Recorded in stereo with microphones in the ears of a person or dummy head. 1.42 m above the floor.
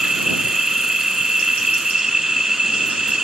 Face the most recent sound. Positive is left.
turn(degrees=-10)  # may be behind; listen again after turning